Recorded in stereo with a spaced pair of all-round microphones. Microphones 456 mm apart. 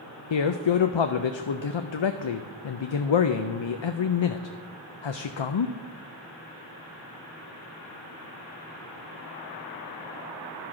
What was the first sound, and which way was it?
A man speaking, 75° left (ahead or behind).